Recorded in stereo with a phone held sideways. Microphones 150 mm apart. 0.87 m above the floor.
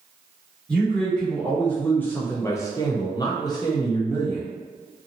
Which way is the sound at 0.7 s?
5° left (ahead or behind).